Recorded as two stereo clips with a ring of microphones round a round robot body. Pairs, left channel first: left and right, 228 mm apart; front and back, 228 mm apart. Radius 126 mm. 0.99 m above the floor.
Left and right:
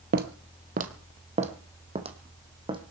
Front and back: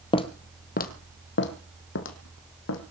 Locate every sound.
0.1 s footsteps: 60° right, 1.3 m; by 2.8 s 20° right, 3 m